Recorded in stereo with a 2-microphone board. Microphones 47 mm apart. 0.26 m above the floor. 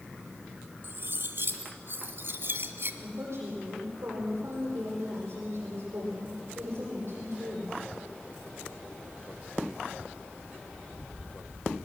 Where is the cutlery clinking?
60° right (ahead or behind), 1.4 m.